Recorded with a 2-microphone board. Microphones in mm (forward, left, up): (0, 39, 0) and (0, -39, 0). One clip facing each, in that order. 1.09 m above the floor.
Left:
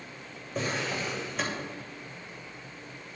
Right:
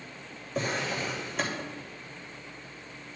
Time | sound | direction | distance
0.6 | a drawer | centre (ahead or behind) | 2.5 m